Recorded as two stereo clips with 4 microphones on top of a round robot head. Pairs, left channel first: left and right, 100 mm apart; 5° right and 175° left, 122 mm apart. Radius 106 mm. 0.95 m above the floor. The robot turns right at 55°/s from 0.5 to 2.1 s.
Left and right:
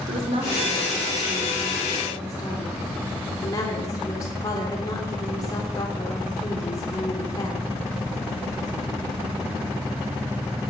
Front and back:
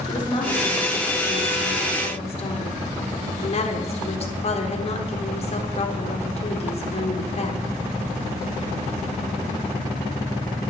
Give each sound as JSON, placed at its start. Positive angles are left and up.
{"t": 0.1, "sound": "a woman speaking", "azimuth_deg": -60, "distance_m": 3.0}